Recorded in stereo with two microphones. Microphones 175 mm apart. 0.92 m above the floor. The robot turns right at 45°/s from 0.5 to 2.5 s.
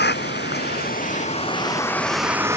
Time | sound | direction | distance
0.0 | a vehicle | 105° left | ?